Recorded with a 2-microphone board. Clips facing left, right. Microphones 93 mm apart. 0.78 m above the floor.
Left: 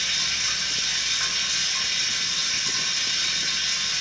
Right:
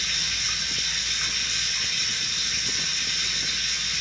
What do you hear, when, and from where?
0.0 s running water: 80° left, 1.8 m